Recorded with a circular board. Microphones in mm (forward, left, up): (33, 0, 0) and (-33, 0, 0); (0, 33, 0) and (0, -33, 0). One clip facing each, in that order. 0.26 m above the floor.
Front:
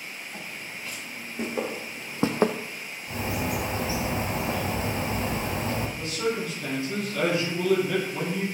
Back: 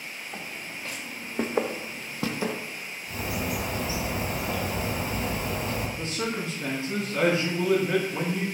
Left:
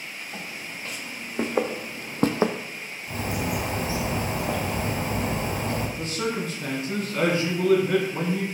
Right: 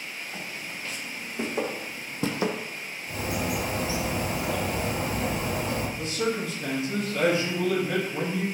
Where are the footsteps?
150° left, 2 m; by 2.5 s 25° left, 0.6 m.